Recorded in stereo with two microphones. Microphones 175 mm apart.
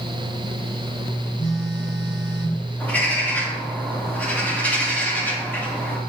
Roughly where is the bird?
Centre.